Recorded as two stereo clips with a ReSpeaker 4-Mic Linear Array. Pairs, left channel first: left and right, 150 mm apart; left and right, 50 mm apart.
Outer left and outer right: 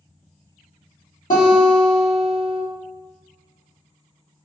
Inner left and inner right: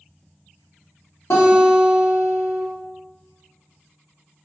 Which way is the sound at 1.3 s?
60° left (ahead or behind).